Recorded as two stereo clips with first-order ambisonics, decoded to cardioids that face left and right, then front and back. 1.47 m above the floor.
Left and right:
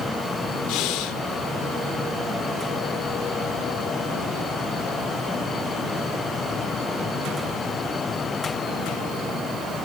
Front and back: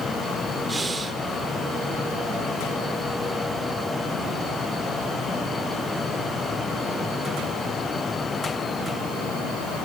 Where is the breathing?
105° left, 1.8 m.